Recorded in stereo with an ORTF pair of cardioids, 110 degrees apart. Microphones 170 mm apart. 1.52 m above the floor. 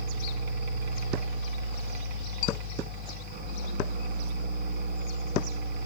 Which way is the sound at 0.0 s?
65° right.